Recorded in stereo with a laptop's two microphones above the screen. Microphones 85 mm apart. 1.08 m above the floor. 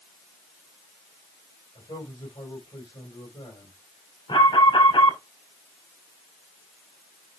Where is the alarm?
80° left, 2.5 m.